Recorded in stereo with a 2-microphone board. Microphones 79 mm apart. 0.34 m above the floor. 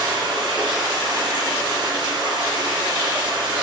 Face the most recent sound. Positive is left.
turn(degrees=-70)  # may be behind; listen again after turning